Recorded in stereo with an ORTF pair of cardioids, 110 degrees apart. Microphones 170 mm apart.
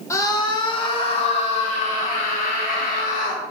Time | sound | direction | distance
0.1 | a scream | 20° left | 2.5 m